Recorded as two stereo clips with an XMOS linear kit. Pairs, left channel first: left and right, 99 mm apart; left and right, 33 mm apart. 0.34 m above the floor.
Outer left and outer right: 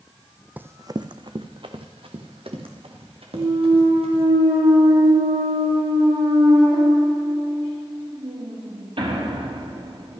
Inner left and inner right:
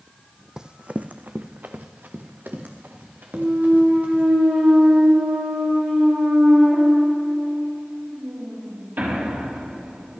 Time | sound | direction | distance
0.6 | running footsteps | 20° right (ahead or behind) | 0.6 m
3.3 | a clunk | 70° right (ahead or behind) | 7.5 m